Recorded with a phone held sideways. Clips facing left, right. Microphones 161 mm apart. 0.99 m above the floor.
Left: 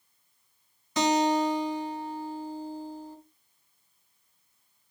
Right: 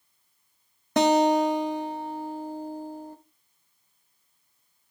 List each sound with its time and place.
1.0 s a guitar: 60° right (ahead or behind), 1.2 m